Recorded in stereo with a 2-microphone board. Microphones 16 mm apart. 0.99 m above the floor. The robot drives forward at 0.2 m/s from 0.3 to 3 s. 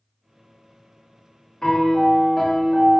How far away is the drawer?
I don't hear a drawer.